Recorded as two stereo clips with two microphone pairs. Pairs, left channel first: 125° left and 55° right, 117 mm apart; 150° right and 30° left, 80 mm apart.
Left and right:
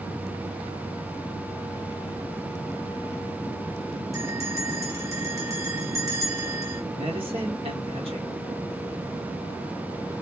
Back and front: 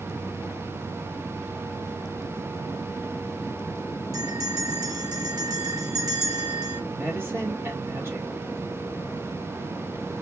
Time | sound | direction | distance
4.1 | a bell | straight ahead | 2.5 m
6.9 | a man speaking | 25° right | 2.5 m